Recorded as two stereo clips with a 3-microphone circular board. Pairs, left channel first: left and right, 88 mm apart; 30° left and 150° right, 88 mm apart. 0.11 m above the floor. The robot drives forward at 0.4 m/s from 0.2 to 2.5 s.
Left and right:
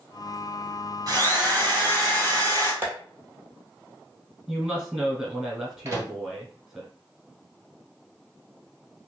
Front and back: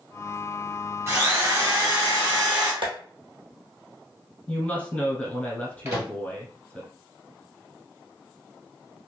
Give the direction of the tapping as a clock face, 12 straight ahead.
5 o'clock.